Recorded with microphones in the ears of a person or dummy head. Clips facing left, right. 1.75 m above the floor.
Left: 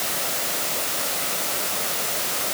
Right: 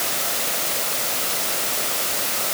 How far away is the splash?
I don't hear a splash.